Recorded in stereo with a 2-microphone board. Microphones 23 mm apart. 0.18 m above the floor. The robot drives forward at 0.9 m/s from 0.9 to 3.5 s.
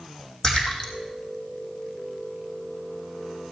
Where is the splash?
25° left (ahead or behind), 2.5 m.